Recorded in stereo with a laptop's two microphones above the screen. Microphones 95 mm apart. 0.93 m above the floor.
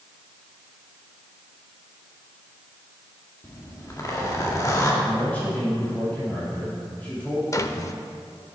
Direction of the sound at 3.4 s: 35° left (ahead or behind).